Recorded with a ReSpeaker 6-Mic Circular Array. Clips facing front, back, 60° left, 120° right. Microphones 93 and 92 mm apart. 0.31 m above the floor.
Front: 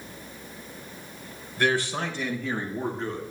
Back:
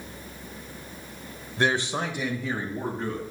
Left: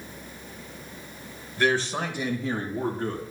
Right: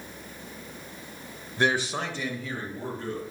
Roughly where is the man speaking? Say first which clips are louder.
Even, left 1 dB; behind right.